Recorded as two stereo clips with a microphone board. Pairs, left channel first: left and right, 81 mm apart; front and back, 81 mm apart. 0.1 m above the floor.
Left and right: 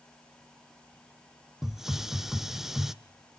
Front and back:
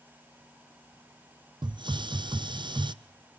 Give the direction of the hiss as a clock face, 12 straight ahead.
6 o'clock.